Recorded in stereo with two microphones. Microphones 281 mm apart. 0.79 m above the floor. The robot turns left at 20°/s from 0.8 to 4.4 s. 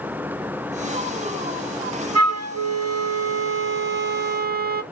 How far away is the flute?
About 0.6 m.